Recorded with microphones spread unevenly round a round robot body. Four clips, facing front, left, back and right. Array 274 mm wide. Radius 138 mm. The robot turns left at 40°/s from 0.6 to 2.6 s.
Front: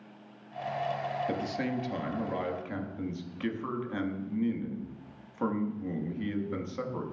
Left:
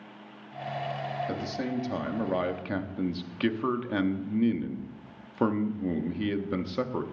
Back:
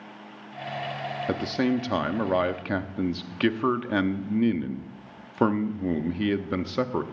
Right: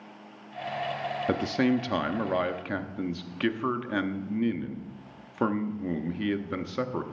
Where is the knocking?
No knocking in this recording.